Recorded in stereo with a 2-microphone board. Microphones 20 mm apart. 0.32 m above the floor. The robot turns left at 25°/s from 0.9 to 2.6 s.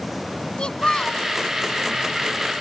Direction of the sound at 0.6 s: 50° left (ahead or behind).